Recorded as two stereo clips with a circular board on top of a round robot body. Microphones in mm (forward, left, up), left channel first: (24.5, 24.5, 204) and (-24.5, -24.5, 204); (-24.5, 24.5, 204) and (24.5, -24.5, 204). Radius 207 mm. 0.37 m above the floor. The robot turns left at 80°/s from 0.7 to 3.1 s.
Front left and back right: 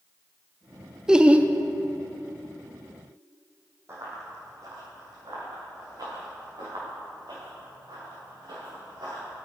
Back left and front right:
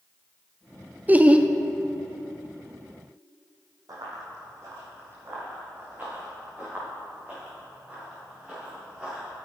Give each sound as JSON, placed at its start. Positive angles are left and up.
{"t": 1.1, "sound": "laughter", "azimuth_deg": -70, "distance_m": 0.8}
{"t": 3.9, "sound": "running footsteps", "azimuth_deg": -80, "distance_m": 1.8}